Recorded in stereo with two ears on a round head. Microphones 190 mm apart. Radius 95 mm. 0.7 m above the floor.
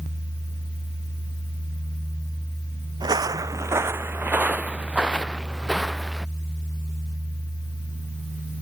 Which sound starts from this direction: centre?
Footsteps, at 3.0 s.